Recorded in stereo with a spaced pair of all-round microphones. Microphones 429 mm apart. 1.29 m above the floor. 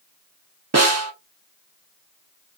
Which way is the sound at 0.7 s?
35° right (ahead or behind).